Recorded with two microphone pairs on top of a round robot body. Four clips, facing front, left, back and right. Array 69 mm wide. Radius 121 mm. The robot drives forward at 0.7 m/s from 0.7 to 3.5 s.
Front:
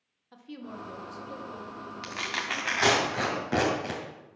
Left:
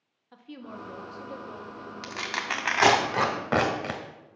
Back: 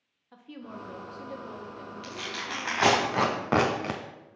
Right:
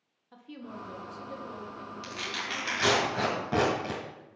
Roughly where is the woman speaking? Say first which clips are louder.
Left 1 dB, front 1 dB; left.